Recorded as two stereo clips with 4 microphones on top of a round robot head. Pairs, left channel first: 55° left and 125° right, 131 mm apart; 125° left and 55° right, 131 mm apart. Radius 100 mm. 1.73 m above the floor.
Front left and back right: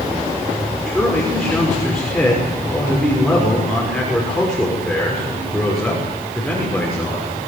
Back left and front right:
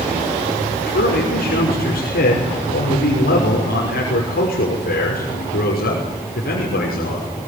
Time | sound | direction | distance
0.9 | a man speaking | 140° left | 6 m